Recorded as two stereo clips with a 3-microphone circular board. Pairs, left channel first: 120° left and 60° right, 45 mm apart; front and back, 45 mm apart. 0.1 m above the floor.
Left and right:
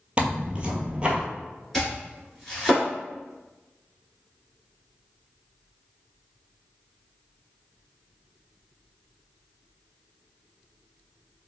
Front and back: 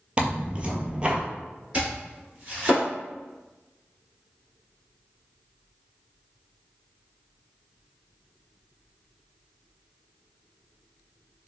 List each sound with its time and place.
0.2 s tearing paper: 120° right, 0.6 m
1.7 s chopping: 155° right, 1.7 m